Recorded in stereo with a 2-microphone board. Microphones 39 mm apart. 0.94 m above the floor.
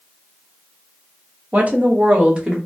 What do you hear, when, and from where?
1.5 s a woman speaking: 35° right (ahead or behind), 0.8 m; by 2.6 s 25° right (ahead or behind), 1.2 m